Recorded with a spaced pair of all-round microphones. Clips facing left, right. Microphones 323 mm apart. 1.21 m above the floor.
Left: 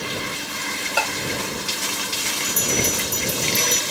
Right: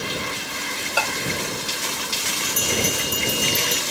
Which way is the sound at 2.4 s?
75° right (ahead or behind).